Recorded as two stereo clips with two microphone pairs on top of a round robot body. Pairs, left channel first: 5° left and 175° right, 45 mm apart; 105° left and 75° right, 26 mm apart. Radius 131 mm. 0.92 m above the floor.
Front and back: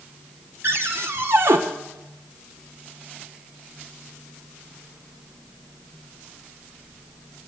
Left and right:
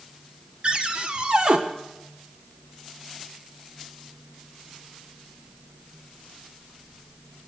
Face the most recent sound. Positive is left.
turn(degrees=-135)